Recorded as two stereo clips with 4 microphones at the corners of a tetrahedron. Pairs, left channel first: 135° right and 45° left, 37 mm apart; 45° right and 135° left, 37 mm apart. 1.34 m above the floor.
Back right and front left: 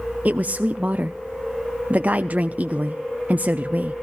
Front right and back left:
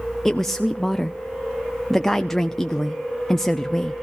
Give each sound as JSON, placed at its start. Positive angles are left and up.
{"t": 0.2, "sound": "a woman speaking", "azimuth_deg": 30, "distance_m": 0.5}